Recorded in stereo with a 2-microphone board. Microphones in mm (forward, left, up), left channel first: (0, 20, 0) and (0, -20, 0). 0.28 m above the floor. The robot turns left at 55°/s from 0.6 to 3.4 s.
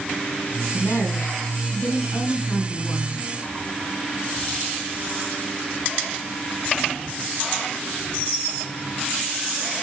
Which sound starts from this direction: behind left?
A woman speaking, at 0.7 s.